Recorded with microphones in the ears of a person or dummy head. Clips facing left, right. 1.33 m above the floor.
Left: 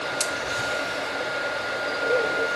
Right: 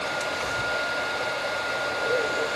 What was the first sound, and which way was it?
Only background noise.